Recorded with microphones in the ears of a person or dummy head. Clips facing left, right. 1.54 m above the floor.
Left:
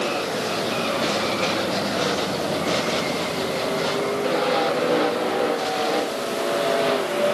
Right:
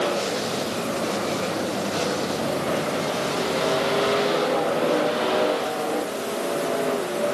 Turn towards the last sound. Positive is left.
No sound to turn to.